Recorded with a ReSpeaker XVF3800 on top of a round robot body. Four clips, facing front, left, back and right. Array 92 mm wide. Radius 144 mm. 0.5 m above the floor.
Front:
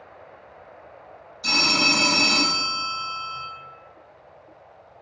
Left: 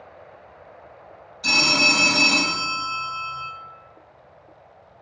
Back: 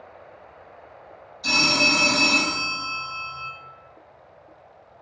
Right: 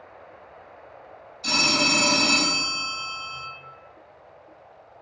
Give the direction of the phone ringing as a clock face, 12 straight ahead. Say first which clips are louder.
Left 3 dB, back 1 dB; 9 o'clock.